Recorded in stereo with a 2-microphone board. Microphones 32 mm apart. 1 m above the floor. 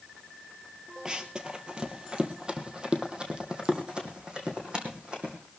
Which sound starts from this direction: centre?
Running footsteps, at 1.1 s.